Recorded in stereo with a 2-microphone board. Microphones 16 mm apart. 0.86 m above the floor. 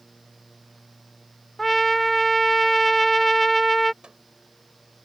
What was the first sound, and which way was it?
A trumpet, 5° left (ahead or behind).